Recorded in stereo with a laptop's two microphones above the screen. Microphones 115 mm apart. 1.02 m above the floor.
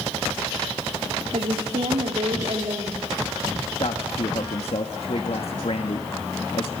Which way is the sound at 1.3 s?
70° right (ahead or behind).